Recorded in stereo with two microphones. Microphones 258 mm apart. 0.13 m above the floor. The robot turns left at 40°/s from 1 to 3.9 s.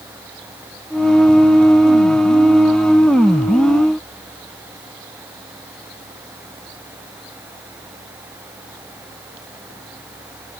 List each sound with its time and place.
Only background noise.